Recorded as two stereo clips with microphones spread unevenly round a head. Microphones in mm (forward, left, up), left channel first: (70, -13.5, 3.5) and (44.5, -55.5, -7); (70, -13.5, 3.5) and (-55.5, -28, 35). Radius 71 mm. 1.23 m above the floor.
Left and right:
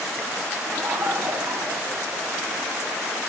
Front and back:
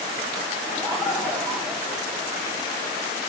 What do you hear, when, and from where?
0.7 s laughter: 75° right, 2.5 m